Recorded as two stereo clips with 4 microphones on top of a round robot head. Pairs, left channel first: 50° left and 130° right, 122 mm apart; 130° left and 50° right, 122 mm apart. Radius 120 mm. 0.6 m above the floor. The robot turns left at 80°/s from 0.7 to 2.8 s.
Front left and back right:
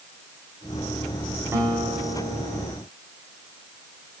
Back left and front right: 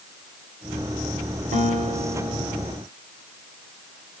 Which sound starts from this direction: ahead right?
A guitar, at 1.5 s.